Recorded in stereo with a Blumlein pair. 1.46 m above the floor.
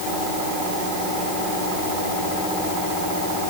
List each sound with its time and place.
Only background noise.